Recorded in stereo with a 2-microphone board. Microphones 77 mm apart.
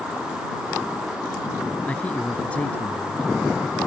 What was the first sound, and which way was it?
A man speaking, 20° left (ahead or behind).